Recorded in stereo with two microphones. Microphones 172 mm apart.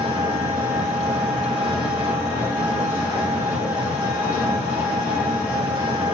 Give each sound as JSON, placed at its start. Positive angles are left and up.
{"t": 0.0, "sound": "an engine running", "side_deg": -30, "distance_m": 1.1}